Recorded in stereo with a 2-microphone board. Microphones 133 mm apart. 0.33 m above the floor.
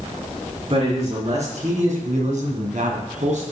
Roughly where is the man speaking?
Right.